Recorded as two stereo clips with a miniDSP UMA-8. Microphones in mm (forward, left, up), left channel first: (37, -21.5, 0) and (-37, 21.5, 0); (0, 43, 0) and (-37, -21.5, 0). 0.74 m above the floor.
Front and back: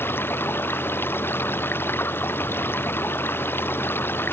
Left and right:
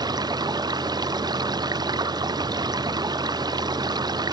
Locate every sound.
0.0 s running water: 95° right